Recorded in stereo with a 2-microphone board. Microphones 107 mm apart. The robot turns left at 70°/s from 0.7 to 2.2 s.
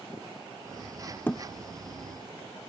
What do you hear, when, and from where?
1.3 s a thud: 20° left (ahead or behind); by 1.4 s 10° left (ahead or behind)